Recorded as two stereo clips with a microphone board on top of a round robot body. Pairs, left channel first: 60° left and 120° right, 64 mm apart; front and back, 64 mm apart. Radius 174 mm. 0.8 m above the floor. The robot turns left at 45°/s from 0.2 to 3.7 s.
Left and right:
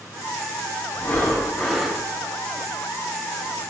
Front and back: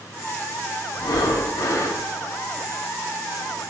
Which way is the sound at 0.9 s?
10° left.